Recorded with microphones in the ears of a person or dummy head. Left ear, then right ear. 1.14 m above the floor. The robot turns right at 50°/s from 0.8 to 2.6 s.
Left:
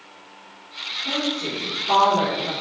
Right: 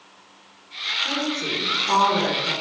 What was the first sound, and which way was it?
A woman speaking, 65° right.